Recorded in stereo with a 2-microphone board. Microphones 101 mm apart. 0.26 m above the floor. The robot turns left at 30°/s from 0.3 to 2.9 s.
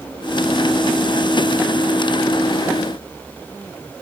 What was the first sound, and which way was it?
Only background noise.